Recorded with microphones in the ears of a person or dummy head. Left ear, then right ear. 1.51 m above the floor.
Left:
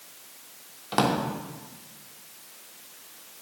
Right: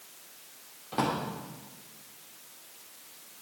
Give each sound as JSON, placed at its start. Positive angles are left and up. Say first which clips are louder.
{"t": 0.9, "sound": "a drawer", "louder": "left 6 dB", "side_deg": 40, "distance_m": 2.5}